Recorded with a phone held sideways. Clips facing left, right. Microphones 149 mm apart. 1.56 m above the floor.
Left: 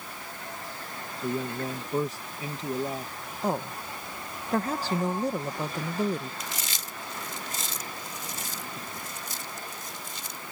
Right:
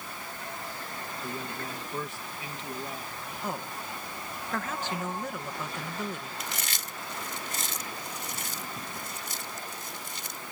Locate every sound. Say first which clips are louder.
1.2 s a man speaking: left 9 dB; 40° left (ahead or behind)
3.4 s a woman speaking: left 7 dB; 35° left (ahead or behind)
6.4 s chewing: even; 65° right (ahead or behind)